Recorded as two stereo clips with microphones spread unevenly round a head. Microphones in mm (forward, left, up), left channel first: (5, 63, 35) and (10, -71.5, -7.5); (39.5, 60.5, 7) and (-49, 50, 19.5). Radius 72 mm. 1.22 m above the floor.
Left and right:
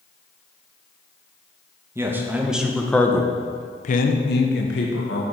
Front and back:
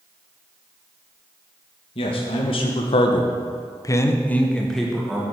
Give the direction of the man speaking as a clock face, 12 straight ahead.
1 o'clock.